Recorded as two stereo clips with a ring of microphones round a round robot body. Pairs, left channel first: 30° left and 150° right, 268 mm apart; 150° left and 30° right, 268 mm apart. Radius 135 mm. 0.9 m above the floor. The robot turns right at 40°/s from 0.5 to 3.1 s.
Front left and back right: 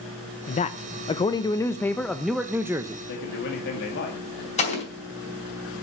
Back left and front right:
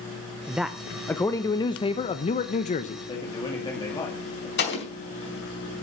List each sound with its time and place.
0.5 s a man speaking: 50° left, 0.7 m; by 3.0 s 150° left, 0.7 m
3.1 s a man speaking: 75° left, 2.0 m
4.6 s an explosion: 95° left, 4 m